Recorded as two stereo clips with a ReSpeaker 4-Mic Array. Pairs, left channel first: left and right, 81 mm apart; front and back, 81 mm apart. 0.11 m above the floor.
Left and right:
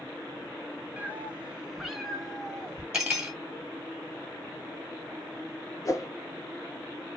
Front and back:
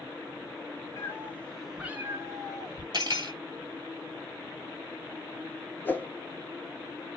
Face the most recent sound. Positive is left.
turn(degrees=60)